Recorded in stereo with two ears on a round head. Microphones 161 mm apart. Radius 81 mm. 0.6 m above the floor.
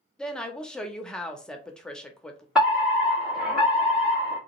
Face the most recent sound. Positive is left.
turn(degrees=-5)  # may be behind; listen again after turning